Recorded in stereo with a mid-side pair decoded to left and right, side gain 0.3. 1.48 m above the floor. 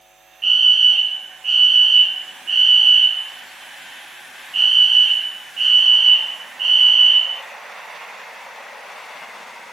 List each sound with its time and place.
0.4 s a fire alarm: 50° right, 2.5 m